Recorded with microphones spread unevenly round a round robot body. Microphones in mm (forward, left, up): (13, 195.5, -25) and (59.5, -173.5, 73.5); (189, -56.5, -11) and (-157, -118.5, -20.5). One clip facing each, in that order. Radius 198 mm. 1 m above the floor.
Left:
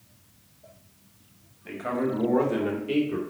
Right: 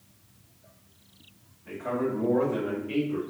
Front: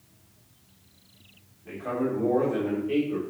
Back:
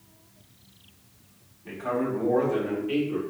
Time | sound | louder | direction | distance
1.6 | a man speaking | left 1 dB, even | 120° left | 3 m